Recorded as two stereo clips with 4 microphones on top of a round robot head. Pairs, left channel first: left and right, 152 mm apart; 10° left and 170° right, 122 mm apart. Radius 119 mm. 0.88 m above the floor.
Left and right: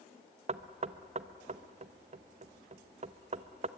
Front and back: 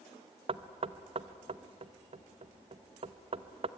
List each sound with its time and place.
0.5 s knocking: 130° right, 0.9 m